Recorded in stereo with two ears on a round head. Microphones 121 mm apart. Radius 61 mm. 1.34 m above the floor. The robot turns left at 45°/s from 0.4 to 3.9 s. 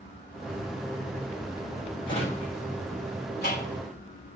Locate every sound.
2.1 s a drawer: 40° left (ahead or behind), 5 m; by 3.8 s 65° left (ahead or behind), 5 m